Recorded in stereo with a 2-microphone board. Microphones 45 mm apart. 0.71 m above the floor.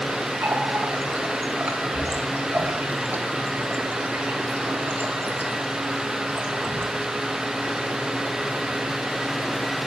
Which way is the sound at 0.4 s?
40° right (ahead or behind).